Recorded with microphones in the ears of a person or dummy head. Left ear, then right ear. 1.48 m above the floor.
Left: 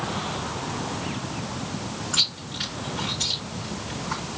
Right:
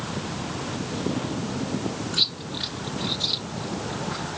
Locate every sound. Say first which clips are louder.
2.1 s chewing: left 1 dB; 45° left (ahead or behind), 6 m